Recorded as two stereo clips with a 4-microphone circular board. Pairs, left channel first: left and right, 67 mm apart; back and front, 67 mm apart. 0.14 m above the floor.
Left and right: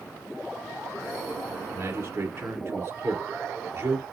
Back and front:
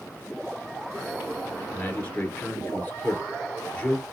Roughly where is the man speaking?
Behind right.